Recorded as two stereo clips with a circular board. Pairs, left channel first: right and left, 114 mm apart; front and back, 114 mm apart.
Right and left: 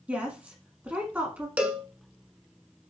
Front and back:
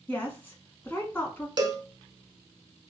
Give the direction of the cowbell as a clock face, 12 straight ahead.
7 o'clock.